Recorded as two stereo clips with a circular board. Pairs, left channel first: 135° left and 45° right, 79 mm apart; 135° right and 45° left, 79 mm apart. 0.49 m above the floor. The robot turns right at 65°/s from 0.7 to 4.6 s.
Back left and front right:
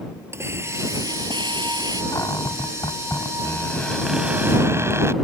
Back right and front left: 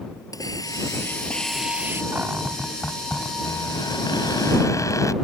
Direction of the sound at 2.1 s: 100° left.